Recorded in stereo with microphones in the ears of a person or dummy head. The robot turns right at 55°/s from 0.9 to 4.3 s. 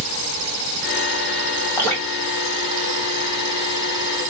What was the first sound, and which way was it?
Dripping, 20° left (ahead or behind).